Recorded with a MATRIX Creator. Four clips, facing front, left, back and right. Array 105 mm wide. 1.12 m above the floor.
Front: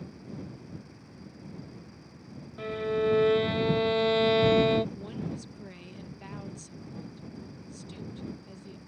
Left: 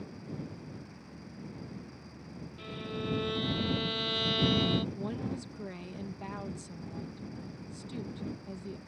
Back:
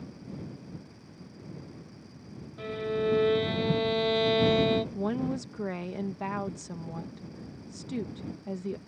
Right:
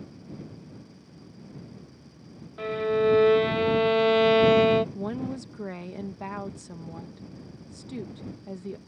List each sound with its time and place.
2.6 s a violin: 80° right
5.0 s a woman speaking: 155° right